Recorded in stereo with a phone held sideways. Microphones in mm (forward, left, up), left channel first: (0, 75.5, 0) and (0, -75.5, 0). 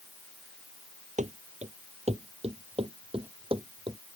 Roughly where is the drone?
I don't hear a drone.